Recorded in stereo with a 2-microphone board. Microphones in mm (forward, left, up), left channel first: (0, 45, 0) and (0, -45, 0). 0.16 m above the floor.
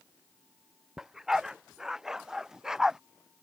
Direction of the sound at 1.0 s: 5° right (ahead or behind).